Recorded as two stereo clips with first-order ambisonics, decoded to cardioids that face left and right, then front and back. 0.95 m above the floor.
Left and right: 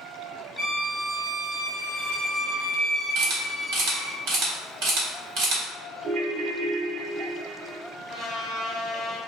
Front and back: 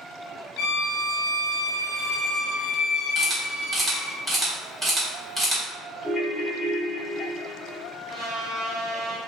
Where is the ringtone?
85° right, 0.7 m.